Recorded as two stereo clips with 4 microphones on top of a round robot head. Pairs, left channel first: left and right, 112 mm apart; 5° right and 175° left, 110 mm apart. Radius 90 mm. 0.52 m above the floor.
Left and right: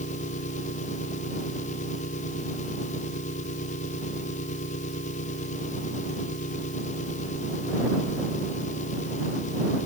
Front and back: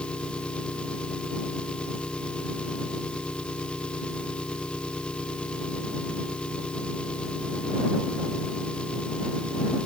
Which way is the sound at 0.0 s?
75° left.